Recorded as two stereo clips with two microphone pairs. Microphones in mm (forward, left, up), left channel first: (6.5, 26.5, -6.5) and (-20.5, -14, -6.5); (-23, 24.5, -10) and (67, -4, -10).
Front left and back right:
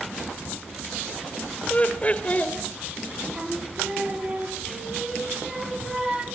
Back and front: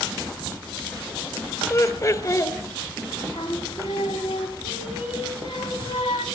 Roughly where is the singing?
Behind.